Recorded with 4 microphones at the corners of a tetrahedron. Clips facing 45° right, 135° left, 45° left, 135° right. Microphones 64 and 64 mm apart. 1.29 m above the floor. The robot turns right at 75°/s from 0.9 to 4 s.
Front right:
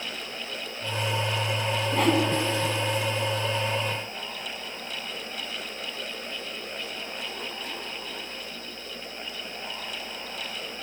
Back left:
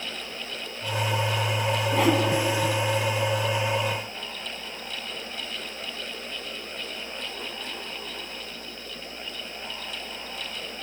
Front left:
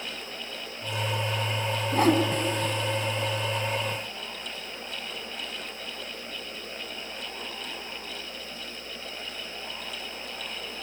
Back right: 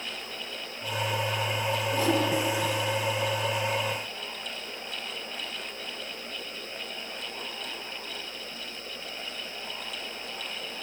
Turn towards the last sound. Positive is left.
turn(degrees=-160)